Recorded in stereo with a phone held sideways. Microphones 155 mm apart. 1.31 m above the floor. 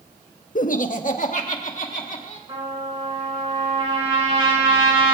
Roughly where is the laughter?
Left.